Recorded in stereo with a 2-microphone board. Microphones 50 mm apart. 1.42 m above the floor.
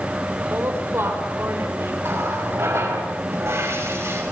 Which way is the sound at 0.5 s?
55° right (ahead or behind).